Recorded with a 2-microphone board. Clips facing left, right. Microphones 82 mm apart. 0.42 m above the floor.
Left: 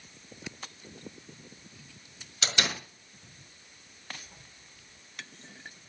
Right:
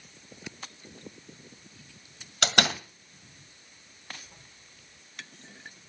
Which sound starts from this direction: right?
A door slam, at 2.4 s.